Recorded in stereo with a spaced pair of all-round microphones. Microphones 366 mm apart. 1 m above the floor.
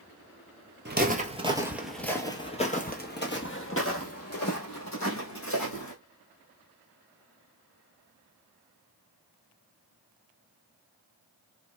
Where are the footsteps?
25° right (ahead or behind), 1.1 m; by 5.9 s 50° left (ahead or behind), 2.5 m.